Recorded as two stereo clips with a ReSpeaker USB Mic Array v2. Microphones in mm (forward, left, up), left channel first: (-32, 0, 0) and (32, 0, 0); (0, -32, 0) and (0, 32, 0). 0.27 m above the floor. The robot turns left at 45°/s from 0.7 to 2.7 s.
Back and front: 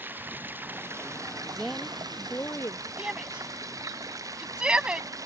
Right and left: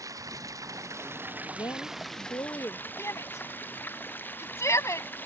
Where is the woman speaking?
85° right; by 2.9 s 135° right.